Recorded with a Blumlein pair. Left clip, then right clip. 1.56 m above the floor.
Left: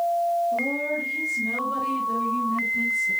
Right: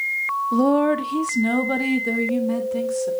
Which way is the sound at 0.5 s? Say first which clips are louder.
Right 6 dB; 35° right.